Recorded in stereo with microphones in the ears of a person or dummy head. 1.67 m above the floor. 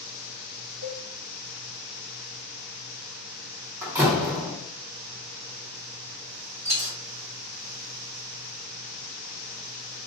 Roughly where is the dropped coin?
Right.